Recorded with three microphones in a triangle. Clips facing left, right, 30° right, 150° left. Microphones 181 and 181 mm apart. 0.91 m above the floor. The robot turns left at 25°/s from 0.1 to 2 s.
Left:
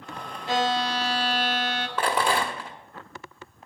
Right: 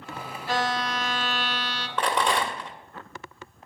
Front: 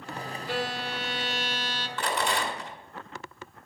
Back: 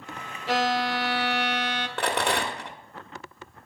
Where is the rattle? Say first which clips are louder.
Even, back 2 dB; 175° left, 1.0 m.